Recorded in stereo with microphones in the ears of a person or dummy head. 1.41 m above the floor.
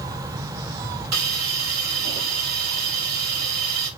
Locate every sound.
1.1 s a hiss: 50° right (ahead or behind), 2 m